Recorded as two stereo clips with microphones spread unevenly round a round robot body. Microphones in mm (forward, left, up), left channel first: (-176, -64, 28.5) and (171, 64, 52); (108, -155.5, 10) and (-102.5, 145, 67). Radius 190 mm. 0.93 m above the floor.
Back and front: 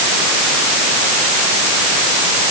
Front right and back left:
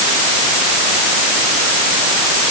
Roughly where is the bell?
No bell in this recording.